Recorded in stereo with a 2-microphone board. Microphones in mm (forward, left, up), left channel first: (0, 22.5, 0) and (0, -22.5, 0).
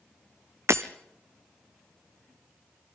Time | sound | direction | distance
0.7 | breaking glass | 75° right (ahead or behind) | 1.0 m